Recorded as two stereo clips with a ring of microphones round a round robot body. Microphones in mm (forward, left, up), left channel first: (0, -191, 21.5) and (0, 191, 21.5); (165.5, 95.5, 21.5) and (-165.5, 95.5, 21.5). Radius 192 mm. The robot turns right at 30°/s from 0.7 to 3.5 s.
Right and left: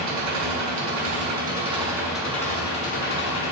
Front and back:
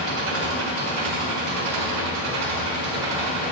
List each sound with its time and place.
0.0 s an engine running: 135° left, 3 m; by 3.5 s 140° right, 3 m